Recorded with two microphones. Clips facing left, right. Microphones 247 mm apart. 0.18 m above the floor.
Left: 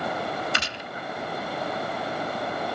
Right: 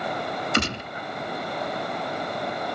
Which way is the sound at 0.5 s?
55° right (ahead or behind).